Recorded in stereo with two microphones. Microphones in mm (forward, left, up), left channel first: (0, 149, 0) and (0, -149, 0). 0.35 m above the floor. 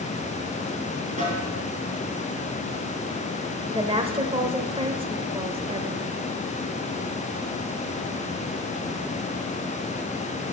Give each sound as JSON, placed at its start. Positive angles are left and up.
{"t": 1.2, "sound": "a snare drum", "side_deg": -25, "distance_m": 4.0}
{"t": 3.7, "sound": "a woman speaking", "side_deg": -20, "distance_m": 0.9}